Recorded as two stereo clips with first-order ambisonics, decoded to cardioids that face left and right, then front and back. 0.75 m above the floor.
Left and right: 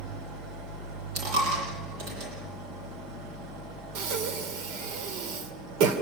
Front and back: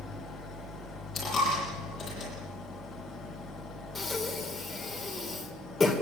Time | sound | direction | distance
0.0 | an engine running | 70° right | 5 m
1.1 | a dropped coin | 65° right | 9 m
4.0 | breathing | 80° right | 2.5 m